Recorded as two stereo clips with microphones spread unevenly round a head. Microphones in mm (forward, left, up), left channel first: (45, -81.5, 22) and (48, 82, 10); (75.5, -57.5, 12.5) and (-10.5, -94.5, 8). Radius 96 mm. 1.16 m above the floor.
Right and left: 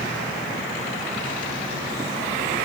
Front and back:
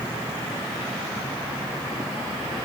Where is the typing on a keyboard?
I don't hear typing on a keyboard.